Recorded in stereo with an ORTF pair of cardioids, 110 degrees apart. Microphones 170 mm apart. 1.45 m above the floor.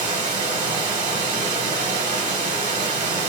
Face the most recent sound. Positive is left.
turn(degrees=-50)